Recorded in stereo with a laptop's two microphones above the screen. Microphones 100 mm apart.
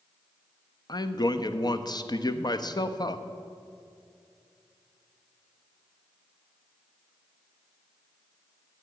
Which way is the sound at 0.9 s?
40° left (ahead or behind).